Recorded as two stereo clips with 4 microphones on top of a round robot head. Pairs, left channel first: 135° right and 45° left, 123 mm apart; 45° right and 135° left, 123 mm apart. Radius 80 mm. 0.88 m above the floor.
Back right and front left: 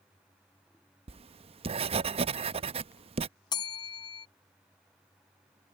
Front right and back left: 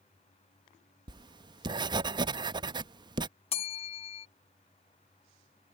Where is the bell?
80° right.